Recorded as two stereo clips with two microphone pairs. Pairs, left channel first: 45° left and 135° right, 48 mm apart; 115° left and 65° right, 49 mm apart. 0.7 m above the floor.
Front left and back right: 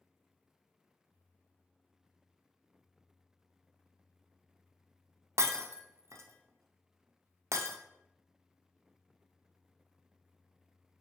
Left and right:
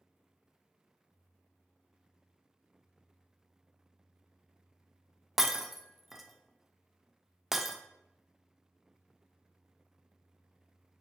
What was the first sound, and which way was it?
Breaking glass, 150° right.